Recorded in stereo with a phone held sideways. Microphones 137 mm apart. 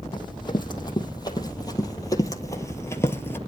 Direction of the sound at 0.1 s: 35° left (ahead or behind).